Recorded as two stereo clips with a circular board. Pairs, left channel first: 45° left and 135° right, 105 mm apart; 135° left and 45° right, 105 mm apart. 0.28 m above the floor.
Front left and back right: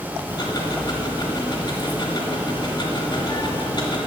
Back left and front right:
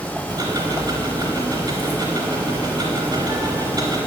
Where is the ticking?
Straight ahead, 1.3 m.